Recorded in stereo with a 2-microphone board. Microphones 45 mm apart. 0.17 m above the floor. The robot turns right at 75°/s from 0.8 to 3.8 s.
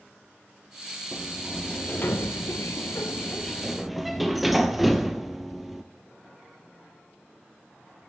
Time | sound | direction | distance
1.1 | a sliding door | 20° right | 0.8 m